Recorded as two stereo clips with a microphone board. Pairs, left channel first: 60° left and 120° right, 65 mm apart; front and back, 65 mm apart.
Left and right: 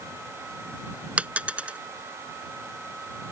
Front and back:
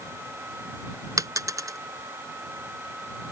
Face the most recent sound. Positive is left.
turn(degrees=175)